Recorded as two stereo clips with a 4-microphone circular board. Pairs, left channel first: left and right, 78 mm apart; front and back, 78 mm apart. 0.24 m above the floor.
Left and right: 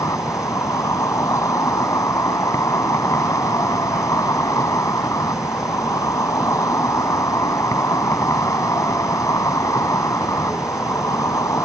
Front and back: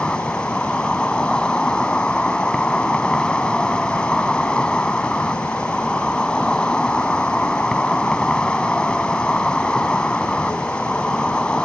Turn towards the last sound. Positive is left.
turn(degrees=75)